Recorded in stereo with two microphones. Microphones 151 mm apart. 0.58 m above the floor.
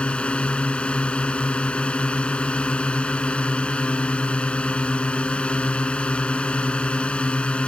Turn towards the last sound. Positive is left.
turn(degrees=10)  # may be behind; listen again after turning